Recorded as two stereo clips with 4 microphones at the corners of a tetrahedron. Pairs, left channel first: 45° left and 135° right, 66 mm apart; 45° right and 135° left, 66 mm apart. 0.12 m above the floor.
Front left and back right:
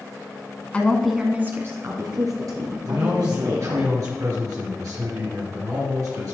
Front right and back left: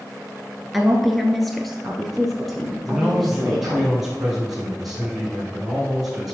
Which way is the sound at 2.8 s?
145° right.